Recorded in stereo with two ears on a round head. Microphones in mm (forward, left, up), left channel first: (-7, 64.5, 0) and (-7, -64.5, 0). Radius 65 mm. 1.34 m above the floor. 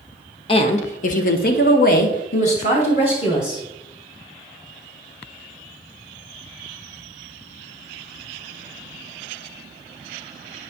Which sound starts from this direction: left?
A woman speaking, at 0.5 s.